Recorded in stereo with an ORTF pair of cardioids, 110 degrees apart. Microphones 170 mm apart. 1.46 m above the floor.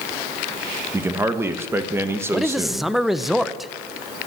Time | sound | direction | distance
0.9 | a man speaking | 15° right | 1.4 m
2.3 | a man speaking | straight ahead | 0.8 m